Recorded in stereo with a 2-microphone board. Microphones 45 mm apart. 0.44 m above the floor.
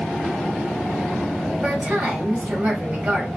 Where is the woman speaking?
40° right (ahead or behind), 1.5 m.